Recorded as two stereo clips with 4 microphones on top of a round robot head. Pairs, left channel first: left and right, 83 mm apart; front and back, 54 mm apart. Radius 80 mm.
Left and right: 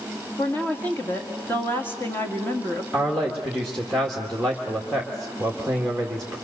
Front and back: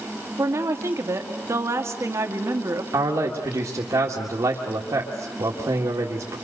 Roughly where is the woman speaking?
Behind left.